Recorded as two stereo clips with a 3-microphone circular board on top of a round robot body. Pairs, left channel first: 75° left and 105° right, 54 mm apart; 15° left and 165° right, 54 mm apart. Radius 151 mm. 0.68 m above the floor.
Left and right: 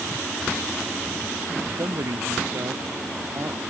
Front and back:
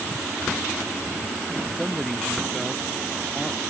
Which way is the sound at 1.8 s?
75° right.